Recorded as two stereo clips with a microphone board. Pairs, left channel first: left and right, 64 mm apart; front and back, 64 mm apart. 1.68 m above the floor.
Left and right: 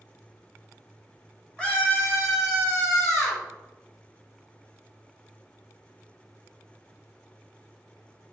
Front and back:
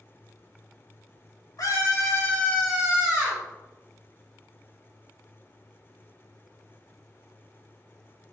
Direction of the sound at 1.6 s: 20° left.